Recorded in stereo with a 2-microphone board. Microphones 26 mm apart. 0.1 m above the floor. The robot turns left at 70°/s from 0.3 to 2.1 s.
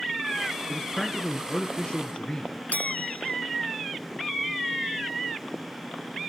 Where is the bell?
75° left (ahead or behind), 0.6 m.